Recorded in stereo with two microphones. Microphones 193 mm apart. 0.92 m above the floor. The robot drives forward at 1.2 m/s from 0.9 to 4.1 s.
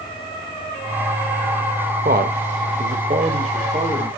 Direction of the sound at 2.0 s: 50° right (ahead or behind).